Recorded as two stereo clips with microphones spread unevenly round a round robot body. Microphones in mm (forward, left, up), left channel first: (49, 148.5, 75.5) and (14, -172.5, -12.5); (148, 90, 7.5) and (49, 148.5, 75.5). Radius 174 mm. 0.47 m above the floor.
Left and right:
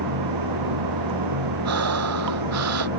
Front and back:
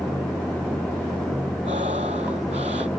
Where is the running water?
120° right.